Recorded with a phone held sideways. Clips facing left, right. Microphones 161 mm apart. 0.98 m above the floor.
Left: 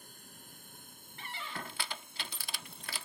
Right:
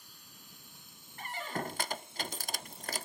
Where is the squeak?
45° right (ahead or behind).